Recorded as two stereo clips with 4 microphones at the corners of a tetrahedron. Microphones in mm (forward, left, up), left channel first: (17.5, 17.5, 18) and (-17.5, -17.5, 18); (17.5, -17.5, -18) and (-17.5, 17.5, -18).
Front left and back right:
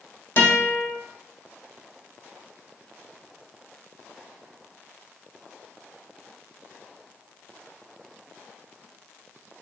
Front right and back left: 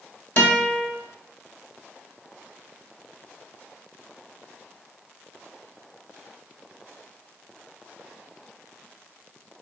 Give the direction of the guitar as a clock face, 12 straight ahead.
12 o'clock.